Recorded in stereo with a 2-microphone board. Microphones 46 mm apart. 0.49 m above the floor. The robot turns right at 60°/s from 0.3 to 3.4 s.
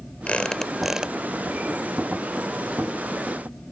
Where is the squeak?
150° left; by 1.2 s 160° right.